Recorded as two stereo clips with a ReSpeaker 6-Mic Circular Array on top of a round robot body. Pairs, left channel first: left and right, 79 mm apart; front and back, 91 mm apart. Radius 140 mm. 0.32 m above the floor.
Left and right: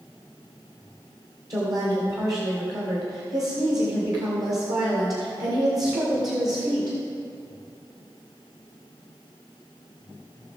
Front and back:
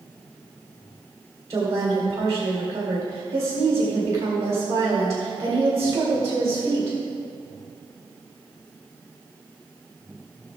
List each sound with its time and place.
1.5 s a woman speaking: 130° right, 2.0 m